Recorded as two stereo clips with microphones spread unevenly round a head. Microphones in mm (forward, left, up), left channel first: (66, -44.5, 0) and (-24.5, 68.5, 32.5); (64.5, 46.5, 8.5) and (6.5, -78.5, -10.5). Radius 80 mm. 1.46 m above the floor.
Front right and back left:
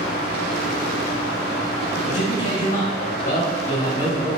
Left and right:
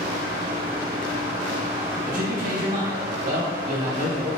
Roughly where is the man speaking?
Right.